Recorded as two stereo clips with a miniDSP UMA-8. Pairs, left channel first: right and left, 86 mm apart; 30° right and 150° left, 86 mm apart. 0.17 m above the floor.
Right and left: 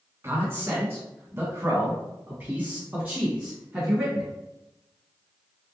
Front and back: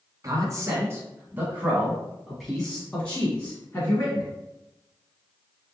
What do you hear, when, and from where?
0.2 s a man speaking: 135° left, 1.6 m; by 4.3 s 15° left, 1.9 m